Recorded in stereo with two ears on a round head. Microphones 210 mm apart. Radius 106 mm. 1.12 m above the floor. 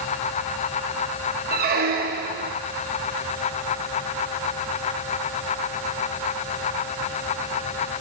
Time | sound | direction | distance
1.5 | a squeak | 40° right (ahead or behind) | 0.8 m